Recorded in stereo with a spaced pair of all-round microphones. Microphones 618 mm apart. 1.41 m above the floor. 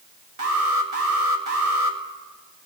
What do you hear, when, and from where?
0.4 s an alarm: 65° right (ahead or behind), 2.5 m